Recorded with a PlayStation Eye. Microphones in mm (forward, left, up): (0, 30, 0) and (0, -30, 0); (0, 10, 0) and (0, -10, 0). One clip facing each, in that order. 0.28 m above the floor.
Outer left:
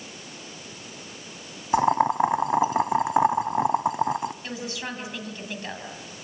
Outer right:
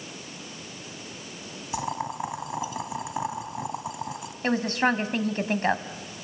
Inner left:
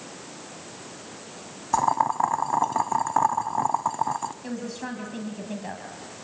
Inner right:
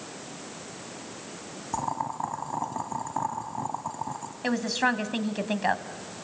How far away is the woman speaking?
About 2 m.